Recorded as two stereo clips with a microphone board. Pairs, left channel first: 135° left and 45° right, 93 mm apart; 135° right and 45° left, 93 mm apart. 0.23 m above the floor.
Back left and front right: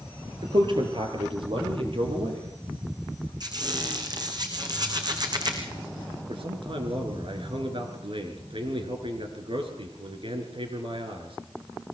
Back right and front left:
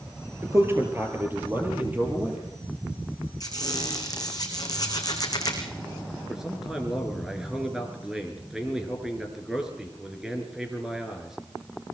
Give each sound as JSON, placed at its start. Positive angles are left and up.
{"t": 0.4, "sound": "a man speaking", "azimuth_deg": -15, "distance_m": 4.0}
{"t": 3.4, "sound": "a squeak", "azimuth_deg": -90, "distance_m": 4.5}
{"t": 6.3, "sound": "a man speaking", "azimuth_deg": -40, "distance_m": 4.0}